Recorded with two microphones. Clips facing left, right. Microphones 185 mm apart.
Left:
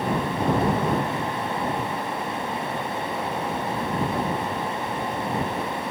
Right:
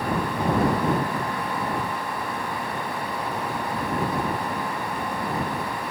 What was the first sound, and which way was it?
Only background noise.